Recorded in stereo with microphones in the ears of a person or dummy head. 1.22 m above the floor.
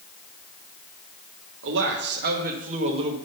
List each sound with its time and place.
1.6 s a man speaking: 65° right (ahead or behind), 1.2 m; by 3.2 s 30° right (ahead or behind), 1.1 m